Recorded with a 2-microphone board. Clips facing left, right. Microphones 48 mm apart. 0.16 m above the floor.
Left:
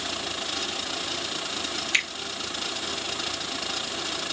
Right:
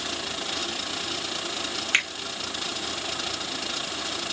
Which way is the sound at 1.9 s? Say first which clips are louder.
Right 2 dB; 45° right (ahead or behind).